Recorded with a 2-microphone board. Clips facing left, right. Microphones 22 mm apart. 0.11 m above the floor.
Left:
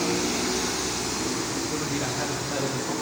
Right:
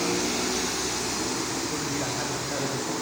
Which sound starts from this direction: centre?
A man speaking, at 1.7 s.